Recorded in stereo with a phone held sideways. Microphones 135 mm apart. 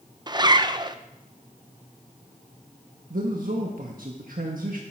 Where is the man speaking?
90° right, 1.4 m.